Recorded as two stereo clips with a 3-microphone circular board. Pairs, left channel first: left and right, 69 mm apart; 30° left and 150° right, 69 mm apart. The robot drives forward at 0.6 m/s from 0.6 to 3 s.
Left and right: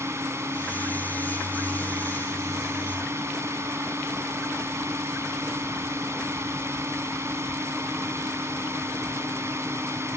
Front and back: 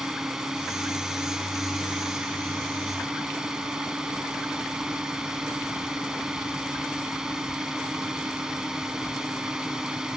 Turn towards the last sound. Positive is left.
turn(degrees=-75)